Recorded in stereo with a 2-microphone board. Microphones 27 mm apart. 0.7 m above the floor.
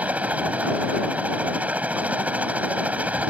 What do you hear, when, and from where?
0.0 s a helicopter: 70° right (ahead or behind)